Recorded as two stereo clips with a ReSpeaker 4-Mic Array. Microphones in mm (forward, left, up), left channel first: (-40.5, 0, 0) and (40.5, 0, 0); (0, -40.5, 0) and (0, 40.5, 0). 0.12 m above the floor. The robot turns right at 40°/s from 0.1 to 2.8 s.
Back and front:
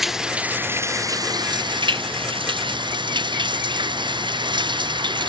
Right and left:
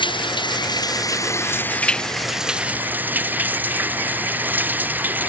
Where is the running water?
85° right; by 5.3 s 20° left.